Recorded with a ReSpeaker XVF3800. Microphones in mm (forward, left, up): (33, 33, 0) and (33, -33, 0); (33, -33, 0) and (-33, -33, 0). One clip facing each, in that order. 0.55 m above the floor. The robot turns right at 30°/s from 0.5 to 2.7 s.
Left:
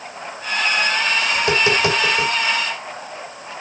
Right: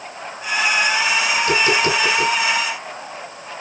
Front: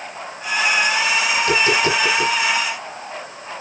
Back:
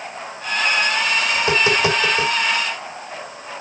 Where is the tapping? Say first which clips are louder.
Even, even; 125° left, 3 m; by 2.3 s 150° left, 3 m.